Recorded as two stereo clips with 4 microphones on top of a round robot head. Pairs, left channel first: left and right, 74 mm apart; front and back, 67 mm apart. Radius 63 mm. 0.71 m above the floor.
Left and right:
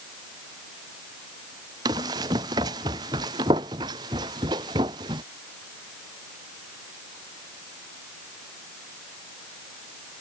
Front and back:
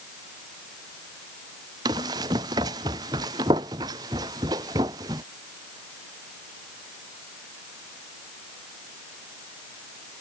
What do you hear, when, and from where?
1.9 s running footsteps: 140° right; by 5.2 s 135° right